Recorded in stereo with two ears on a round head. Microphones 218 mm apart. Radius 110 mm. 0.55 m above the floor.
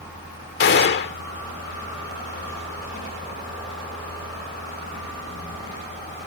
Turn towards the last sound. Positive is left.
turn(degrees=45)  # may be behind; listen again after turning